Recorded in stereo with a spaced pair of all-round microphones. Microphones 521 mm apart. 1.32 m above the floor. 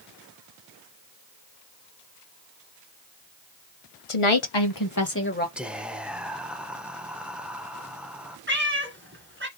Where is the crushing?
I don't hear crushing.